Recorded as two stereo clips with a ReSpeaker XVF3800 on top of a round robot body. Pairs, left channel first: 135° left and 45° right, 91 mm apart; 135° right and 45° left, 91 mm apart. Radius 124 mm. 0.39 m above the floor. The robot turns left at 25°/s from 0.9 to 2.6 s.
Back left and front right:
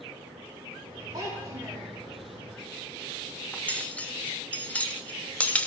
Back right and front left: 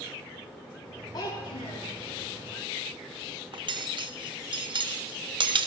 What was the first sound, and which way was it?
A child speaking, 95° right.